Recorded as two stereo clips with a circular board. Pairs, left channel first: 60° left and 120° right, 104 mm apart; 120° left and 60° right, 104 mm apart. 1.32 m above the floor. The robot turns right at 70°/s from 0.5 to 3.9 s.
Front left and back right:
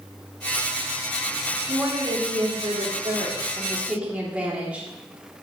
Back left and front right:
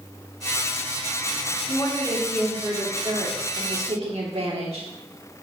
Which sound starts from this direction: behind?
A woman speaking, at 1.7 s.